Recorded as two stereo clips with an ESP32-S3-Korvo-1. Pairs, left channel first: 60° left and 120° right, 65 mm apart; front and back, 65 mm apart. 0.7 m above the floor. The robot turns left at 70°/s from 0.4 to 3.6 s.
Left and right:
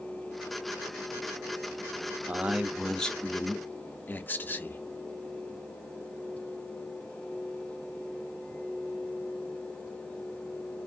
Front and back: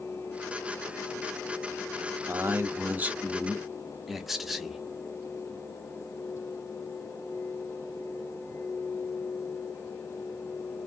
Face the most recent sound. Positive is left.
turn(degrees=95)